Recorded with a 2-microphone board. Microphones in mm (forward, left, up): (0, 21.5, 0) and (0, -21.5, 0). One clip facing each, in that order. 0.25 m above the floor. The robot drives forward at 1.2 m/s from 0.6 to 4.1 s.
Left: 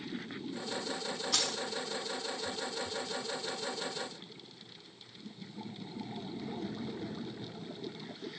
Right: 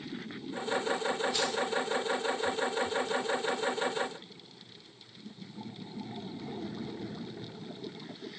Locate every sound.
1.3 s keys jangling: 80° left, 7 m